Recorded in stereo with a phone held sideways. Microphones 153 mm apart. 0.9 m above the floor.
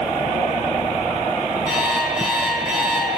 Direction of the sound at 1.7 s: 5° right (ahead or behind).